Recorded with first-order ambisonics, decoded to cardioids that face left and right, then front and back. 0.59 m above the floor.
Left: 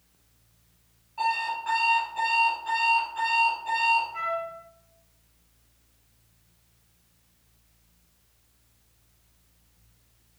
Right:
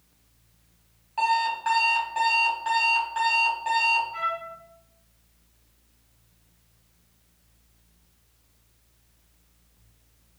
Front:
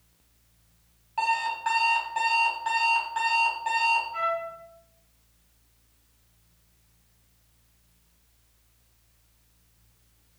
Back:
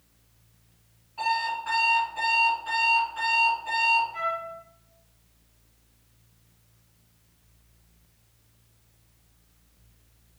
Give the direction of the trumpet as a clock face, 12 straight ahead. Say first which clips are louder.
Right 1 dB, front 2 dB; 3 o'clock.